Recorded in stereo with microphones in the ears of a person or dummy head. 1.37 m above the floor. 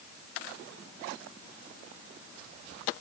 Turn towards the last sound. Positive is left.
No sound to turn to.